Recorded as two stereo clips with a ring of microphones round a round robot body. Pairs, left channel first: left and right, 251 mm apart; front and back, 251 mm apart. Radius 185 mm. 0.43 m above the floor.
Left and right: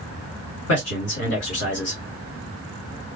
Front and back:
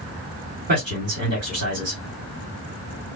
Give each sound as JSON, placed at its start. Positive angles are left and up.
{"t": 0.7, "sound": "a man speaking", "azimuth_deg": 125, "distance_m": 2.5}